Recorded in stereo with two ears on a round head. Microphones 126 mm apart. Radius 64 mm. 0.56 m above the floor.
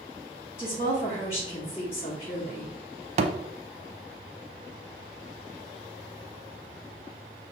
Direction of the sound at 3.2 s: 50° right (ahead or behind).